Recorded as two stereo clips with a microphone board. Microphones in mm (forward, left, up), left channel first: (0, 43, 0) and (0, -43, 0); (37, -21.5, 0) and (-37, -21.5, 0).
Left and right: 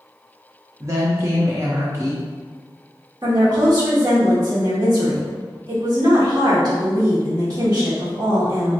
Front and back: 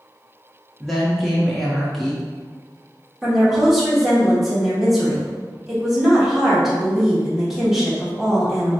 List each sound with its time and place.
0.8 s a woman speaking: 90° right, 0.8 m
3.2 s a woman speaking: 100° right, 1.4 m